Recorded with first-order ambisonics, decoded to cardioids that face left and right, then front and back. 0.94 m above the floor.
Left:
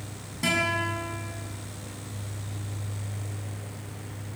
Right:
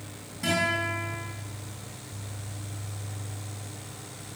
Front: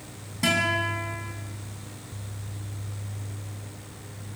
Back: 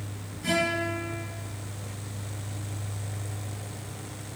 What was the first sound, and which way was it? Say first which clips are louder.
A guitar: left 1 dB, front 3 dB; 25° left.